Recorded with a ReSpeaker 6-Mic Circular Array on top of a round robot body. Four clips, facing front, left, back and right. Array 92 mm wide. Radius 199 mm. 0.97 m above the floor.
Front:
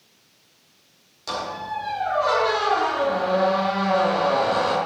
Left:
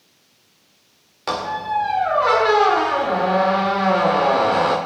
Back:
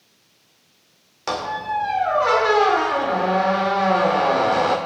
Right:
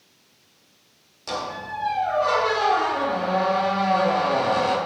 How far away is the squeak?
About 1.9 m.